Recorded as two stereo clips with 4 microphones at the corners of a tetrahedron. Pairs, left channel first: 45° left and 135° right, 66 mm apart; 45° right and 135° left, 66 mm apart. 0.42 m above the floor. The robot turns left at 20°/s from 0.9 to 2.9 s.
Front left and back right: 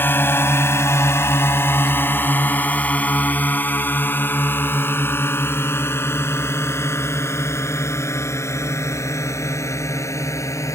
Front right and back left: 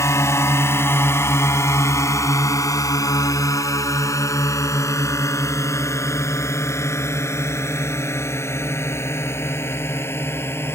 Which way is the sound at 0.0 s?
10° right.